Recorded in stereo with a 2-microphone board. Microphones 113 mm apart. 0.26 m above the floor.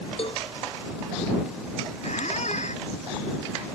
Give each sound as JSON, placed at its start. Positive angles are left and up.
{"t": 0.2, "sound": "a cowbell", "side_deg": 55}
{"t": 2.0, "sound": "a squeak", "side_deg": 85}